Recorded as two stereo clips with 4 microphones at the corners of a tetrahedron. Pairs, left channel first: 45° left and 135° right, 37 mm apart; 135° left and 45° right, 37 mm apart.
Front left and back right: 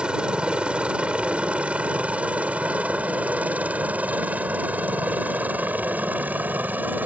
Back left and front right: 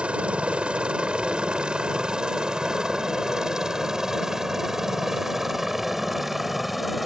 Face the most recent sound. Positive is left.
turn(degrees=-130)